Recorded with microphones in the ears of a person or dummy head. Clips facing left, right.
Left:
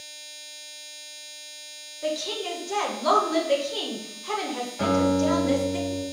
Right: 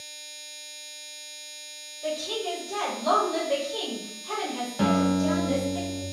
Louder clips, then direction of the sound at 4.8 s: Left 1 dB; 55° right (ahead or behind).